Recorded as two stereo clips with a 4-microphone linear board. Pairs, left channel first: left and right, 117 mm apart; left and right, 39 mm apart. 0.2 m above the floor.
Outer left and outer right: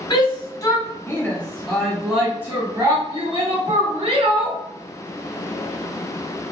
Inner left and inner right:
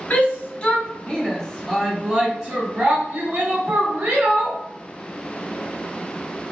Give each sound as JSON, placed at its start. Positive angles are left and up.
{"t": 0.1, "sound": "a shout", "side_deg": 40, "distance_m": 1.8}